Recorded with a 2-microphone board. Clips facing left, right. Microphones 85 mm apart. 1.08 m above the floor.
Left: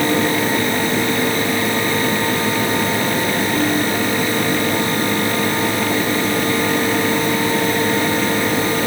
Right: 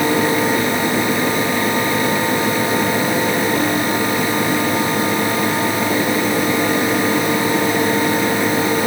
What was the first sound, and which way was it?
Only background noise.